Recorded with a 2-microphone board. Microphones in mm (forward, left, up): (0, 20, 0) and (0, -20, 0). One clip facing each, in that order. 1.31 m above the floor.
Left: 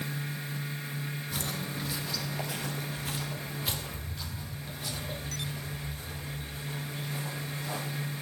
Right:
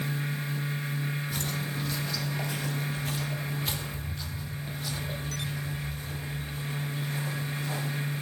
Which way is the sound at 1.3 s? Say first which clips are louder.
Right 2 dB; 5° left (ahead or behind).